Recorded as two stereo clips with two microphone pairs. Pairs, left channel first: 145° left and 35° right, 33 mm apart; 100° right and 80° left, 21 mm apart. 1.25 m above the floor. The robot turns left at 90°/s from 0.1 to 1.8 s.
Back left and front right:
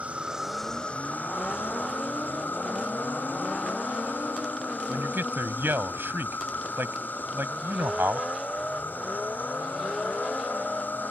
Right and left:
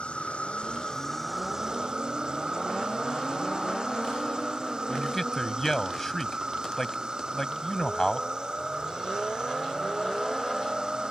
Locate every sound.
0.0 s an insect: 85° right; by 11.1 s 125° left
4.9 s a man speaking: 30° right